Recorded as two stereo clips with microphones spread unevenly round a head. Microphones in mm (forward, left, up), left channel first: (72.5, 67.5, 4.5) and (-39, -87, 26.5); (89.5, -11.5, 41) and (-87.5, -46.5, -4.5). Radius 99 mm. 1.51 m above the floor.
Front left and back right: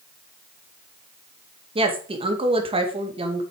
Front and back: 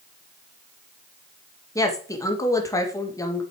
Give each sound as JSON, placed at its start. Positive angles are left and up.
{"t": 1.8, "sound": "a woman speaking", "azimuth_deg": -65, "distance_m": 2.5}